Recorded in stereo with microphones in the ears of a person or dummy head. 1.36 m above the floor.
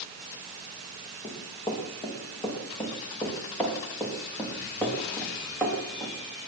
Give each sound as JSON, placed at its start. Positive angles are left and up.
{"t": 1.2, "sound": "running footsteps", "side_deg": 25, "distance_m": 7.0}